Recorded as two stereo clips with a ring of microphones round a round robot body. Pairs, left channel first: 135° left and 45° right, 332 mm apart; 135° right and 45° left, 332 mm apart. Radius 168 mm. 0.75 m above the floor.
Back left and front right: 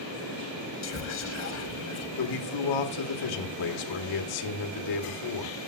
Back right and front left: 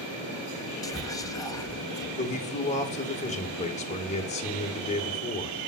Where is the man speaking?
155° left, 1.9 m.